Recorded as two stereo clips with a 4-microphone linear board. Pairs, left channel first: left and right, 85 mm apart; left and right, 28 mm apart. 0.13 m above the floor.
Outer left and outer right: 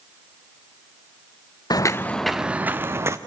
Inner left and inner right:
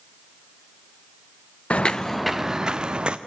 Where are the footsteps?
50° left (ahead or behind), 0.6 m; by 3.2 s 35° right (ahead or behind), 1.2 m.